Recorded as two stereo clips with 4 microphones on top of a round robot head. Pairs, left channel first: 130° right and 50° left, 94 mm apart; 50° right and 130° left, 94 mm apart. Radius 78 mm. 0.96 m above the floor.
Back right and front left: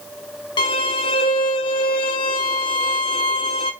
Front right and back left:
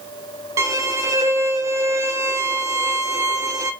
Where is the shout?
I don't hear a shout.